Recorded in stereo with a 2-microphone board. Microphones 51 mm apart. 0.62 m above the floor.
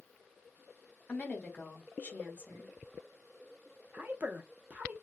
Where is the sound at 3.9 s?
30° right (ahead or behind), 0.7 m.